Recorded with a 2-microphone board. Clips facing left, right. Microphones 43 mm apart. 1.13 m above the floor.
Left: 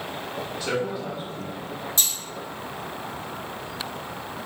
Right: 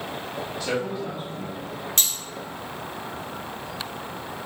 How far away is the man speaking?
About 1.2 m.